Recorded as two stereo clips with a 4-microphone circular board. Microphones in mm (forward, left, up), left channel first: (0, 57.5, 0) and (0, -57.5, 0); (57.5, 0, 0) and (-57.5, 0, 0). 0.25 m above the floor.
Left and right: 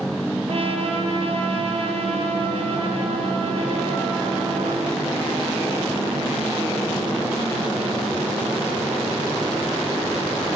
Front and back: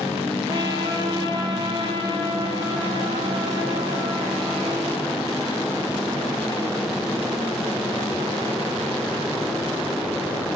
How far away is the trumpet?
About 3 m.